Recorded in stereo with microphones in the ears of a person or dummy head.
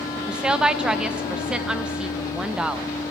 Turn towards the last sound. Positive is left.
turn(degrees=-5)  # may be behind; listen again after turning